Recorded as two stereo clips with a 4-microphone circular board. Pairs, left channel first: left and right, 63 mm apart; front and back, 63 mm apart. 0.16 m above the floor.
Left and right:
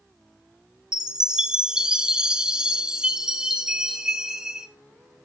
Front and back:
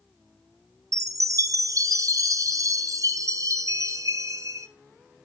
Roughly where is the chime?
Behind.